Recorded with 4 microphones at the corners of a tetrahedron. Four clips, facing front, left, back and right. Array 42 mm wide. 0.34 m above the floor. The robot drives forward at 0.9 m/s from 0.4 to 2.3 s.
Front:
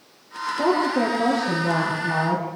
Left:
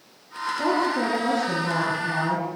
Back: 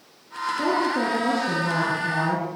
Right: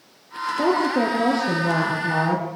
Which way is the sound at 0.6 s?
75° right.